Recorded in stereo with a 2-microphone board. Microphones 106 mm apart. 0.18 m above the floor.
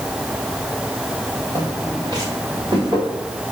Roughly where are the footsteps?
Right.